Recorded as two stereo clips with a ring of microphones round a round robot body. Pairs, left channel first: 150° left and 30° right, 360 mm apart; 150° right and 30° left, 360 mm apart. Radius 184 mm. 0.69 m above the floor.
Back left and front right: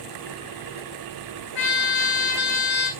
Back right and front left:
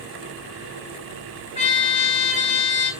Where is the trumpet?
140° left, 3 m.